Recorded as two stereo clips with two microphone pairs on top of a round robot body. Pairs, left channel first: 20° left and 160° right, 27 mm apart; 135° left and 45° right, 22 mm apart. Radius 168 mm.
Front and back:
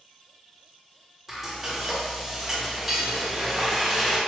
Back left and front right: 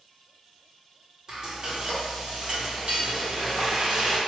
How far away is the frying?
About 1.4 m.